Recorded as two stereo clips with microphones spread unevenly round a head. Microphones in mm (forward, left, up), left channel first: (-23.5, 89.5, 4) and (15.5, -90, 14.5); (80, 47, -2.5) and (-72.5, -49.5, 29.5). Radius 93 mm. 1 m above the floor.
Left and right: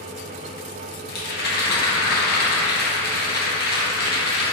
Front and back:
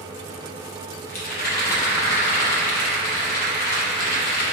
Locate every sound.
1.1 s a rattle: 65° left, 0.9 m